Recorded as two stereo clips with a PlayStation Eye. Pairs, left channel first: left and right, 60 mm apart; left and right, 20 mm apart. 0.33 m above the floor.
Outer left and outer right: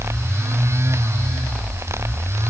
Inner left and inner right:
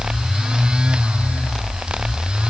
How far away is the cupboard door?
I don't hear a cupboard door.